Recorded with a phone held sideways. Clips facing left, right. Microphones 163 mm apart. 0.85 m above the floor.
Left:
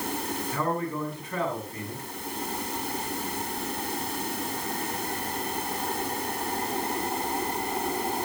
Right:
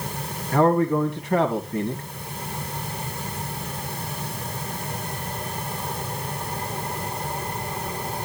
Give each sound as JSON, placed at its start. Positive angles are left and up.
{"t": 0.5, "sound": "a man speaking", "side_deg": -70, "distance_m": 1.9}